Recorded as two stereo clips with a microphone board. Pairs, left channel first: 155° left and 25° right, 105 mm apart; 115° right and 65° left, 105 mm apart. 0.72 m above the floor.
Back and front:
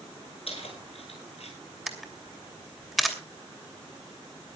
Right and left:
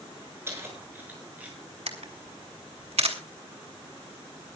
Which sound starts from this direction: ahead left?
A camera shutter, at 1.9 s.